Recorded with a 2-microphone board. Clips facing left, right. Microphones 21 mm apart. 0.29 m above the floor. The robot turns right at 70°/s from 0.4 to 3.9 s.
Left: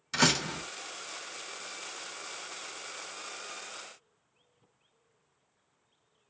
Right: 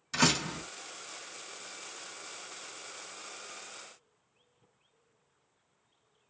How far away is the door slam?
About 1.4 m.